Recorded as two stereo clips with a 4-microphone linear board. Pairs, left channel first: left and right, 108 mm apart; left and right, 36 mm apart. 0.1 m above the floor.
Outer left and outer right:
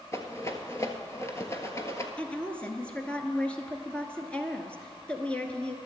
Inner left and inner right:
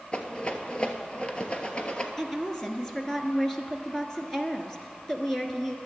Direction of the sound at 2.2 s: 10° left (ahead or behind).